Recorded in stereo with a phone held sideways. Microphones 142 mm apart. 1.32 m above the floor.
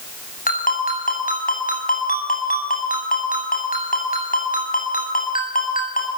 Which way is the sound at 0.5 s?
75° left (ahead or behind).